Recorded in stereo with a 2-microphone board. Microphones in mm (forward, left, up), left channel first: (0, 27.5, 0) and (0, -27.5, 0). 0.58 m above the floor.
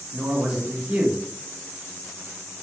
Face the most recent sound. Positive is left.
turn(degrees=-15)  # may be behind; listen again after turning